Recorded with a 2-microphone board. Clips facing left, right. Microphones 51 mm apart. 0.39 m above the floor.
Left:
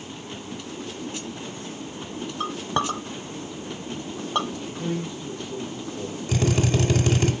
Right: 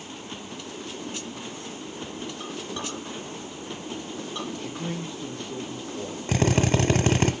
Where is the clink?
60° left (ahead or behind), 0.9 m.